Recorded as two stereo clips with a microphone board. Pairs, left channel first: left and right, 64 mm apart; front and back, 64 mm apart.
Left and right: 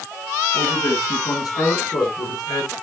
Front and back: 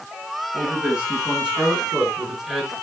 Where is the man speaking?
115° left, 4.5 m; by 2.7 s 90° left, 5 m.